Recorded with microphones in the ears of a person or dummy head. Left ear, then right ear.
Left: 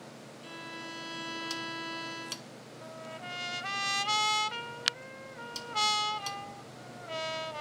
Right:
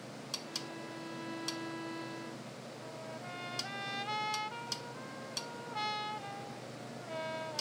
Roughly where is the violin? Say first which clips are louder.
Left 1 dB; left.